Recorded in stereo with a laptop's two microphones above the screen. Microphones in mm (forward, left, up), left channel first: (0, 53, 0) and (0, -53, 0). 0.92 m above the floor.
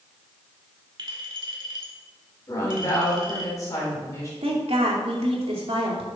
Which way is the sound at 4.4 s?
70° right (ahead or behind).